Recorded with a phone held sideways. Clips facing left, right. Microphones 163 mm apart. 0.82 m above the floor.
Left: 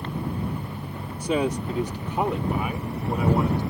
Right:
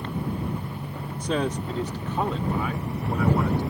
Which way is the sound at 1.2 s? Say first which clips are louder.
Left 2 dB; 10° left (ahead or behind).